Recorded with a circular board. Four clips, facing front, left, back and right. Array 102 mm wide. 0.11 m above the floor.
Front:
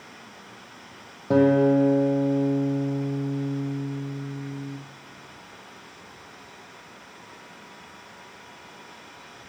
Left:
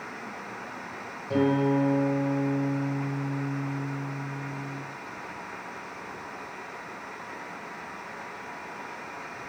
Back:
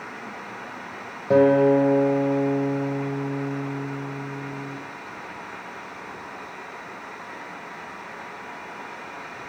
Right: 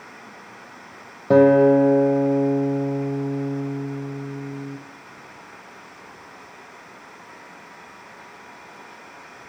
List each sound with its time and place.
1.3 s a guitar: 95° right, 0.9 m